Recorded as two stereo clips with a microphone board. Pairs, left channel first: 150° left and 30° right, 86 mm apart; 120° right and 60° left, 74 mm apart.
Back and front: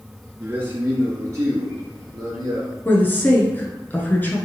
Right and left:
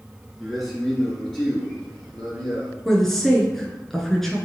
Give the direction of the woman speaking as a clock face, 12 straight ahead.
7 o'clock.